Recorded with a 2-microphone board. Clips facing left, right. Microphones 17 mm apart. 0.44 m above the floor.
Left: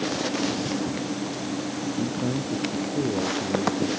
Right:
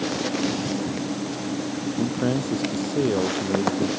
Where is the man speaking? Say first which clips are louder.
Right 5 dB; 40° right (ahead or behind).